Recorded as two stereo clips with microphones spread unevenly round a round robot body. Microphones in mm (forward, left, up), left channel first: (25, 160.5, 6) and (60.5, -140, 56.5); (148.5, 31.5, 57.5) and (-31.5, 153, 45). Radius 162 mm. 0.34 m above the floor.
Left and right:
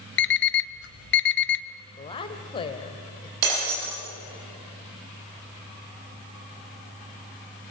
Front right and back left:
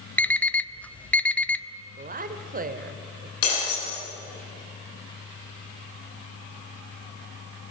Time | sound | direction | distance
0.2 | an alarm clock | 50° left | 1.0 m
2.0 | a woman speaking | 150° left | 1.7 m
3.4 | breaking glass | 70° right | 8.5 m